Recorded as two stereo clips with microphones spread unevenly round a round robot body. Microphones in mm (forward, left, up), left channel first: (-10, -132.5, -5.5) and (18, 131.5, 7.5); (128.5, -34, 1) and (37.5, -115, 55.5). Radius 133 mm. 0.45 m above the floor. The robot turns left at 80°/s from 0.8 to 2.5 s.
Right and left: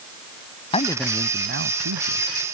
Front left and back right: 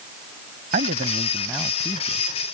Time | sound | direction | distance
0.7 | a man speaking | 165° right | ?